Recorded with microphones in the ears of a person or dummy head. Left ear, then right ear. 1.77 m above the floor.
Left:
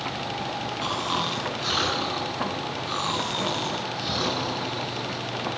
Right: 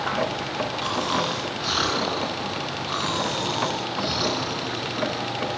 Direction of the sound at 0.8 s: 15° left (ahead or behind).